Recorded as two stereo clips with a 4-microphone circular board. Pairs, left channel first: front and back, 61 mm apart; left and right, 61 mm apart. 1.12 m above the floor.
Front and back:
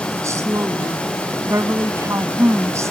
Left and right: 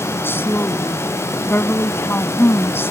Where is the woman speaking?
140° left.